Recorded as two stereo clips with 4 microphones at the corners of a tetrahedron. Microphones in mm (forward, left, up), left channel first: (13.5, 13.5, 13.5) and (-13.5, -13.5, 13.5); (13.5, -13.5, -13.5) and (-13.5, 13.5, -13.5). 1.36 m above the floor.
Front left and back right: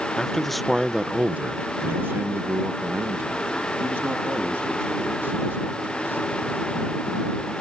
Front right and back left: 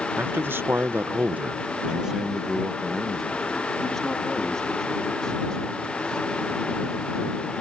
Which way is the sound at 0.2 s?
120° left.